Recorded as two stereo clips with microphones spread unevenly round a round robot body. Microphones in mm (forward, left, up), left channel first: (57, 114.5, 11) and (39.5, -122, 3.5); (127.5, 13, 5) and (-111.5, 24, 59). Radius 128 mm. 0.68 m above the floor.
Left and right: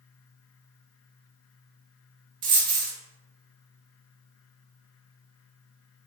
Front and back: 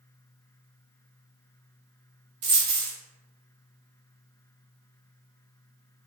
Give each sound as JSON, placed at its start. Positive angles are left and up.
{"t": 2.4, "sound": "a dropped coin", "azimuth_deg": -145, "distance_m": 0.8}